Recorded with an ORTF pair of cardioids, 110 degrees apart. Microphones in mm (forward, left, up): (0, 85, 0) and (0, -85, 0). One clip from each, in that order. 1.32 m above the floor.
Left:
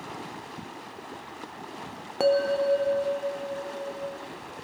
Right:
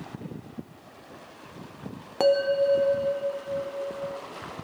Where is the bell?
5° right, 0.7 m.